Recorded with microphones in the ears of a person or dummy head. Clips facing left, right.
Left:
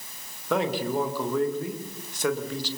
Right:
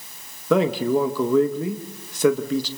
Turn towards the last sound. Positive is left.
turn(degrees=-70)  # may be behind; listen again after turning